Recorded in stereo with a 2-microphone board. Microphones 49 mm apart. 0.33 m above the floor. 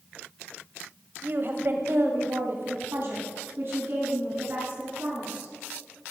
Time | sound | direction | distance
1.2 | a woman speaking | 45° right (ahead or behind) | 1.1 m